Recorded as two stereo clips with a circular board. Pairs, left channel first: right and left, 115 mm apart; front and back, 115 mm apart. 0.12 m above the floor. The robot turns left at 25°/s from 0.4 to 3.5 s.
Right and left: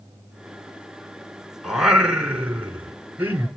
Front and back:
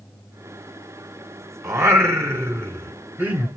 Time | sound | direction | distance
1.6 | singing | 170° left | 1.0 m